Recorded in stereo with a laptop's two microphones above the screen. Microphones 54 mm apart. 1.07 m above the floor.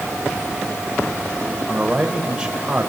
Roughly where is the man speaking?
Centre.